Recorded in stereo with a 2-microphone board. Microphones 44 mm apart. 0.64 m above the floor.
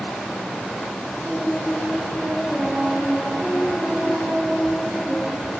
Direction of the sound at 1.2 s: 10° left (ahead or behind).